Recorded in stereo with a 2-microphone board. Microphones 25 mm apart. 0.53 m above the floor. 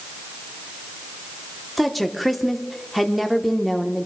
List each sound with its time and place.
1.8 s a woman speaking: centre (ahead or behind), 0.9 m